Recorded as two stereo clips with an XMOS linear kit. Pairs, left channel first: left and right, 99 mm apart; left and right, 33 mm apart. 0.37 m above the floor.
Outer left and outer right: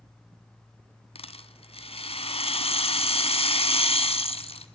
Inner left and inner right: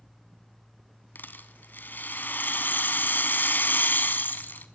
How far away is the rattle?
About 1.7 m.